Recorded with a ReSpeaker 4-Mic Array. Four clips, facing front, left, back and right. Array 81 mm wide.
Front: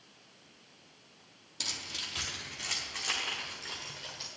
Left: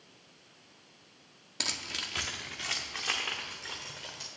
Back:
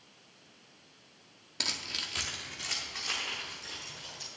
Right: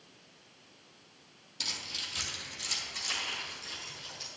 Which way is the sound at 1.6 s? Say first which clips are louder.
Left 4 dB, back 3 dB; 130° left.